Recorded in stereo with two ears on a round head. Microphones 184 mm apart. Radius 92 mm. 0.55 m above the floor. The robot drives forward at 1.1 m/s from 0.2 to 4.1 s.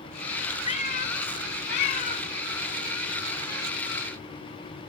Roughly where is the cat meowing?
Left.